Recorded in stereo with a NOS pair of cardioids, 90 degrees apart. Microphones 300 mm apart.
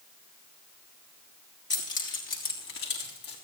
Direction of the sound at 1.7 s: 40° left.